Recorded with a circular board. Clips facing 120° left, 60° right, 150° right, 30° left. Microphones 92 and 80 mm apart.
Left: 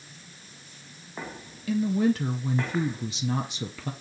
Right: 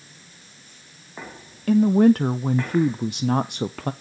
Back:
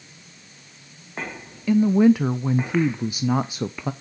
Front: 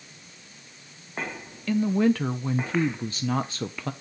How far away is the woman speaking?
About 0.5 m.